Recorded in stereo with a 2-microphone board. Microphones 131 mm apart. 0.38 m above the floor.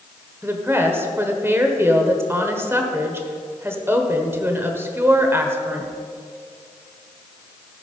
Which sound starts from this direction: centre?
A woman speaking, at 0.4 s.